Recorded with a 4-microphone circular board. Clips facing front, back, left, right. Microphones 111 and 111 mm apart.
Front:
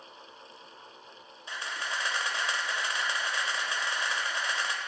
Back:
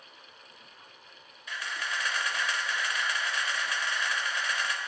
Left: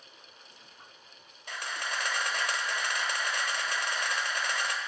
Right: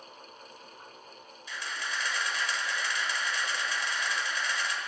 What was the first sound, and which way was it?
A camera shutter, 60° left.